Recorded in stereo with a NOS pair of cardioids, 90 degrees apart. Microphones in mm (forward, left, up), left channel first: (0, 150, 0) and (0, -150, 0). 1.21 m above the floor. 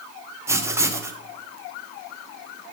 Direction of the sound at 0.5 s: 10° right.